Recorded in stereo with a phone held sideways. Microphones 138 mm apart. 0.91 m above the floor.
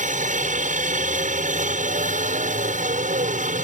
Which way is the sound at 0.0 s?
65° right (ahead or behind).